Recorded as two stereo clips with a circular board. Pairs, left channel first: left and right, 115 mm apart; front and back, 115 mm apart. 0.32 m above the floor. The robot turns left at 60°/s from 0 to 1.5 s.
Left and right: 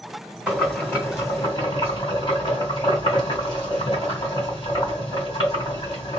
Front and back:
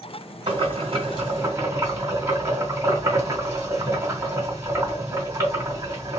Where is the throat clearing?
I don't hear throat clearing.